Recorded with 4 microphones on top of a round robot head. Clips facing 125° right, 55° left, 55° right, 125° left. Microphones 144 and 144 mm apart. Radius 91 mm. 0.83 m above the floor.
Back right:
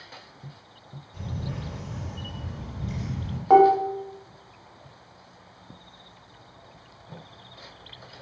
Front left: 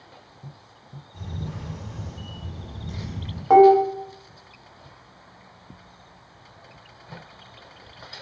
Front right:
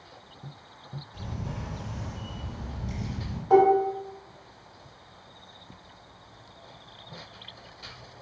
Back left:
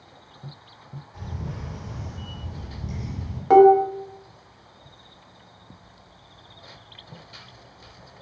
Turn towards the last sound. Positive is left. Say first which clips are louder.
# front left 3 dB, back left 6 dB
turn(degrees=145)